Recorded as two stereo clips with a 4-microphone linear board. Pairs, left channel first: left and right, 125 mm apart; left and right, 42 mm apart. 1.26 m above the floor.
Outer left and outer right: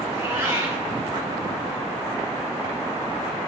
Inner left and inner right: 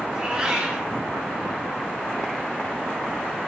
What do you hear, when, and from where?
0.1 s a cat meowing: 25° right (ahead or behind), 2.0 m